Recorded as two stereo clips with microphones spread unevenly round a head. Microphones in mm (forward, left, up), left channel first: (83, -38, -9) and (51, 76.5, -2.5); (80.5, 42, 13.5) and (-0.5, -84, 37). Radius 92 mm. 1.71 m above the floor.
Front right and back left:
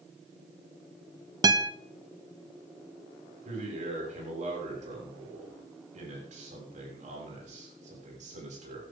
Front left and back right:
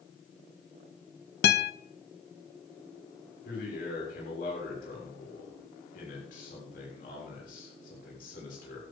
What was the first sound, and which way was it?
A guitar, 50° left.